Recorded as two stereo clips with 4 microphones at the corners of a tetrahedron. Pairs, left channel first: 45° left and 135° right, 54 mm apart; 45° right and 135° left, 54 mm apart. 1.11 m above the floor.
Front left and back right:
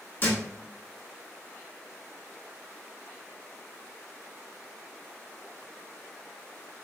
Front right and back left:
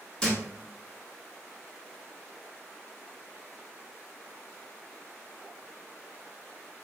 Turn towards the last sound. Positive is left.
turn(degrees=25)